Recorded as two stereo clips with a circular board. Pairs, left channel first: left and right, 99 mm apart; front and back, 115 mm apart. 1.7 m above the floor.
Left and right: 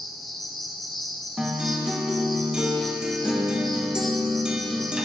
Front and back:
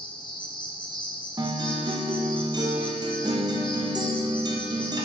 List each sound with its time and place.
0.0 s an insect: straight ahead, 1.0 m
1.4 s a guitar: 170° right, 0.9 m